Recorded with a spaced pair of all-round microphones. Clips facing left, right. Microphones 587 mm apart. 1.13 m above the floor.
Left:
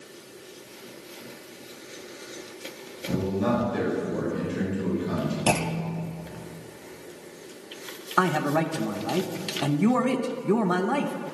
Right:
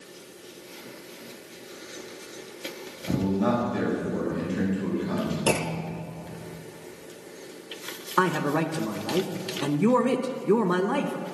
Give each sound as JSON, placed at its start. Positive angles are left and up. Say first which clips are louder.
{"t": 3.1, "sound": "a man speaking", "louder": "right 1 dB", "side_deg": -10, "distance_m": 4.5}
{"t": 5.5, "sound": "a clunk", "louder": "even", "side_deg": 15, "distance_m": 0.6}
{"t": 8.2, "sound": "a man speaking", "louder": "even", "side_deg": 10, "distance_m": 0.7}